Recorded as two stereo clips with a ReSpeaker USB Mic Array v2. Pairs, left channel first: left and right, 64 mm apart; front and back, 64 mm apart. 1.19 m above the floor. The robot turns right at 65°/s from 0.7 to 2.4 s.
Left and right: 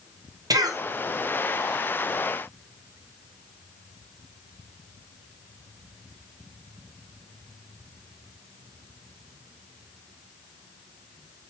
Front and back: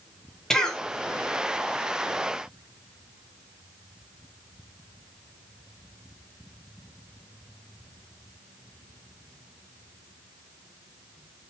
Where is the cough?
80° right, 0.6 m; by 0.8 s 75° right, 0.6 m.